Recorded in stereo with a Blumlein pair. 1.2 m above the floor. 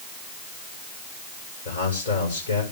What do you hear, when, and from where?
1.6 s a man speaking: 55° left, 5.5 m